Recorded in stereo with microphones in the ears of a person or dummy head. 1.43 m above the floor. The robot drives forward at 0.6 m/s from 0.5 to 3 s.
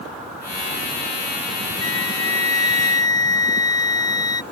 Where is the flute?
20° left (ahead or behind); by 4.4 s 25° left (ahead or behind).